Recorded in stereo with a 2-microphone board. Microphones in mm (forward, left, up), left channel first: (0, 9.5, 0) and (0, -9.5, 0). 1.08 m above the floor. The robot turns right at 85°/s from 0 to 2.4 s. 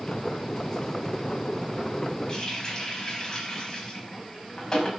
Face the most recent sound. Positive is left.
turn(degrees=30)  # may be behind; listen again after turning